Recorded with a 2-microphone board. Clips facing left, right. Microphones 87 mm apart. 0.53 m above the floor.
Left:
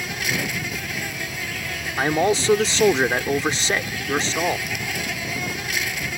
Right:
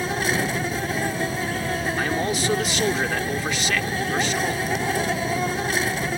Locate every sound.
0.0 s an insect: 40° right (ahead or behind)
2.0 s a man speaking: 30° left (ahead or behind)